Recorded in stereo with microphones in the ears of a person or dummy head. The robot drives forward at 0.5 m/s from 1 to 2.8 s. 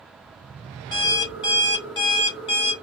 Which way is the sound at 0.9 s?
20° left (ahead or behind).